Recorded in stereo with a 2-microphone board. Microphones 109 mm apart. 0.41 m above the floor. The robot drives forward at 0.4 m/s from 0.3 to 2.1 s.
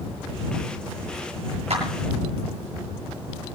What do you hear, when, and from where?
1.7 s a clap: 70° right (ahead or behind), 7.5 m